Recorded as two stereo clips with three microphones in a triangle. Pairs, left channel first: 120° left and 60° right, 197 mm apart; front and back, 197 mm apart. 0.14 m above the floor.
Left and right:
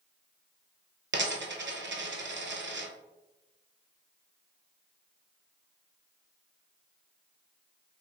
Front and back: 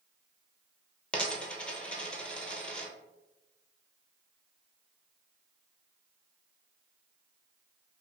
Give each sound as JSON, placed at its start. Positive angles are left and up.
{"t": 1.1, "sound": "a dropped coin", "azimuth_deg": -85, "distance_m": 0.5}